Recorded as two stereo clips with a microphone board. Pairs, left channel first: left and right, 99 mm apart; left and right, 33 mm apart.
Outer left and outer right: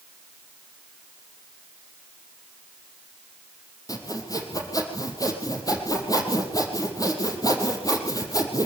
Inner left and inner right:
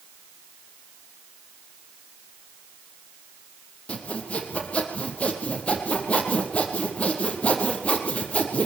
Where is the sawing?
35° left (ahead or behind), 4 m.